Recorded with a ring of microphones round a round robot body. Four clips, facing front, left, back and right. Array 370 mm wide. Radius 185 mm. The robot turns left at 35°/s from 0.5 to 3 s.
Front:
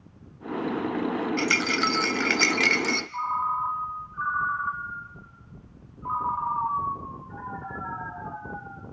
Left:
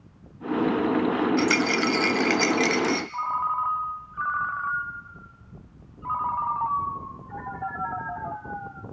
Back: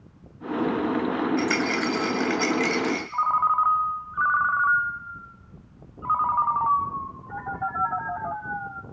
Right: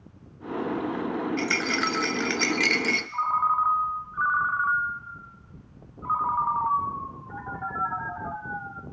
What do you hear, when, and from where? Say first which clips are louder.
1.4 s a rattle: left 5 dB, back 2 dB; 40° left, 1.2 m; by 3.0 s 20° right, 1.2 m
3.1 s a ringtone: right 3 dB, back 7 dB; 170° left, 1.5 m